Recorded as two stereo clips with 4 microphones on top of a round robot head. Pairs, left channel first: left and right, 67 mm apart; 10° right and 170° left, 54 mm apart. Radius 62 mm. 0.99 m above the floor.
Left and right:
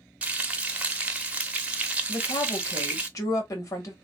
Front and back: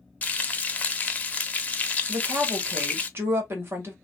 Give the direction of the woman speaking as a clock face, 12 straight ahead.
8 o'clock.